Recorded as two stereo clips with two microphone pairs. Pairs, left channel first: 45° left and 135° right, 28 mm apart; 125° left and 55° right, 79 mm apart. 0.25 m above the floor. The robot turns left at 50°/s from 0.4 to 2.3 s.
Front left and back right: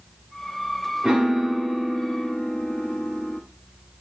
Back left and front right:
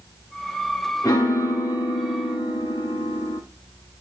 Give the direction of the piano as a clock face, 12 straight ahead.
7 o'clock.